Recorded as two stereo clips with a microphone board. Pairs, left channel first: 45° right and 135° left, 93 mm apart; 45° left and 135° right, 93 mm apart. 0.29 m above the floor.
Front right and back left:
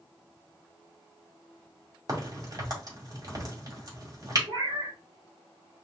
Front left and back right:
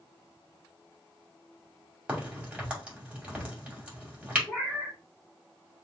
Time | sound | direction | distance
2.1 | a crack | 150° left | 2 m
4.5 | a cat meowing | 130° left | 2.5 m